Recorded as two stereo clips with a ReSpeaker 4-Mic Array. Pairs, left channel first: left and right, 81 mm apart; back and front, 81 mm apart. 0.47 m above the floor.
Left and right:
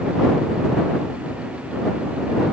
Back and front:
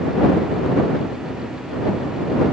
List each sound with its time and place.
Only background noise.